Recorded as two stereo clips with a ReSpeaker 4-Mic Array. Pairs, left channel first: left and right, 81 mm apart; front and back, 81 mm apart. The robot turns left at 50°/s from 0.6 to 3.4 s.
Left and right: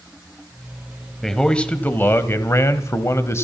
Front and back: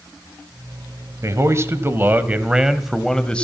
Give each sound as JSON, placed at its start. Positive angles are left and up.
{"t": 1.2, "sound": "a man speaking", "azimuth_deg": 175, "distance_m": 1.2}